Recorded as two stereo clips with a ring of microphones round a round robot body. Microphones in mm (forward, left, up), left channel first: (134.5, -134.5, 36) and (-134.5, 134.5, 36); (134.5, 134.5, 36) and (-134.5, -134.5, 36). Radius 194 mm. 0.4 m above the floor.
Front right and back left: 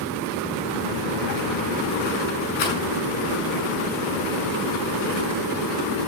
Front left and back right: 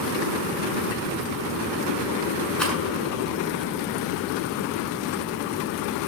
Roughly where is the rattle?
Ahead right.